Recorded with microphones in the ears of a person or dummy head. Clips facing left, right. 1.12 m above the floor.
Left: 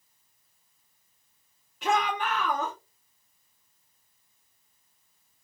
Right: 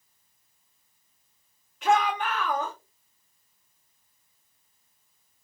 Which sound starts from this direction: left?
A shout, at 1.8 s.